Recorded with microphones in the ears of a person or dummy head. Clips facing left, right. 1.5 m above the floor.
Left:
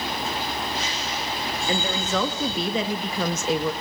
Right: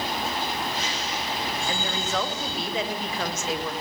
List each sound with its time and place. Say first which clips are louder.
1.7 s a woman speaking: left 7 dB; 60° left (ahead or behind), 3.5 m; by 3.7 s 85° left, 2.5 m